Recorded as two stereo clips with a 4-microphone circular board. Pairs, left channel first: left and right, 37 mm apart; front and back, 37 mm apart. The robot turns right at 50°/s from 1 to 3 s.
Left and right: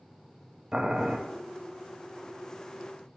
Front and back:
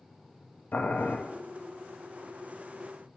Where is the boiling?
20° right, 0.7 m; by 1.2 s 10° right, 0.7 m.